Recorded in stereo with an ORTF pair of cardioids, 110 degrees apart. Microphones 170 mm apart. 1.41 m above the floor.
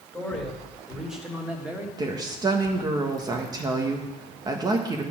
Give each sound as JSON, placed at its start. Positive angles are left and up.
{"t": 0.1, "sound": "a man speaking", "azimuth_deg": 5, "distance_m": 3.0}
{"t": 2.0, "sound": "a woman speaking", "azimuth_deg": -25, "distance_m": 1.3}